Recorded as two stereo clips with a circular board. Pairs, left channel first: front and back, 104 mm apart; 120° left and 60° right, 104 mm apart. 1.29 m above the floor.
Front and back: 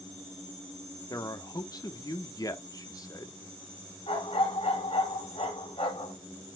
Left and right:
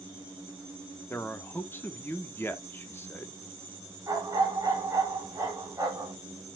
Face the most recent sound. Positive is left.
turn(degrees=0)